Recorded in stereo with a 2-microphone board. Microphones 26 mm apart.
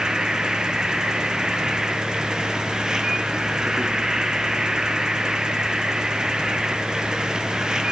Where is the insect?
30° right (ahead or behind), 0.8 m.